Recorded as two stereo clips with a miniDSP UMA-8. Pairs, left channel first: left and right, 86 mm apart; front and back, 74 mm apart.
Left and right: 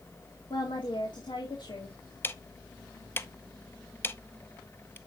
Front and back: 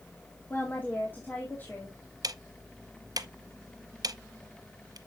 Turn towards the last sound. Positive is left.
turn(degrees=155)